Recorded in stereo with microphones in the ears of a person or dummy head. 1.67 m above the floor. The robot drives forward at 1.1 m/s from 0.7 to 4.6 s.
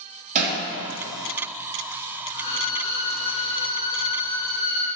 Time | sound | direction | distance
0.3 | hammering | 40° right (ahead or behind) | 3.5 m
2.3 | a violin | 35° left (ahead or behind) | 3.5 m